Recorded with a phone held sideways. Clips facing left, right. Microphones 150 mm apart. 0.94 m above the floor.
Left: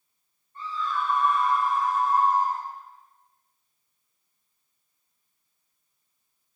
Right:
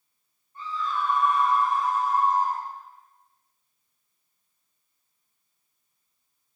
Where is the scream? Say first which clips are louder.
Even; 10° right (ahead or behind), 2.5 m; by 2.6 s 30° right (ahead or behind), 5.5 m.